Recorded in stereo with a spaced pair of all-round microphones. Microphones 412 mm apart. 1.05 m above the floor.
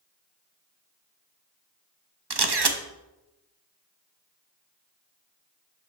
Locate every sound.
2.3 s a camera shutter: 75° right (ahead or behind), 0.9 m